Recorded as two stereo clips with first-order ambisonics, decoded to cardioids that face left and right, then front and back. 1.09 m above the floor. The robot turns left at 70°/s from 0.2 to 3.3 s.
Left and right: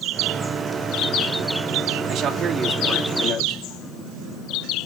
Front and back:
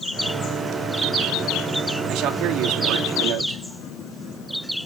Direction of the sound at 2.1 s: 135° right.